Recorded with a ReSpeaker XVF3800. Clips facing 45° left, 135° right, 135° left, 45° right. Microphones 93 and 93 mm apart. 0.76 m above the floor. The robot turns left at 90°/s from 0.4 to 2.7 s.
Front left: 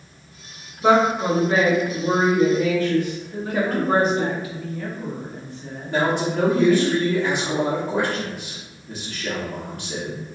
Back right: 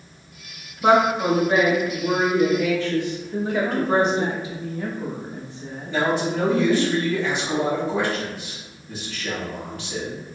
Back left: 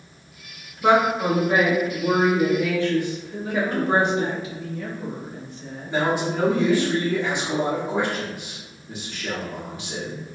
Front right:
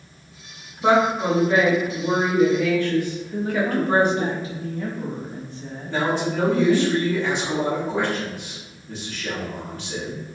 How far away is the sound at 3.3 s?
About 1.0 m.